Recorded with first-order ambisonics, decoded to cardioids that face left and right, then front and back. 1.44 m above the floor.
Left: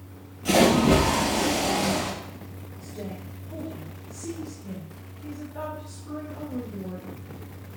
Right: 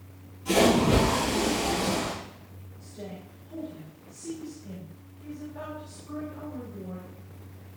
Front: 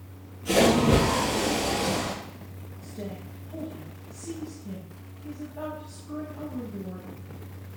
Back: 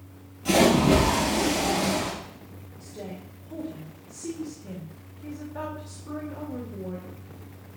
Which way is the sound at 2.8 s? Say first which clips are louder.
Left 3 dB, even; 155° left.